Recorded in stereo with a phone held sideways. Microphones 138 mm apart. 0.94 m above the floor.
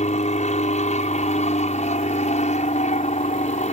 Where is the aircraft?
55° left (ahead or behind).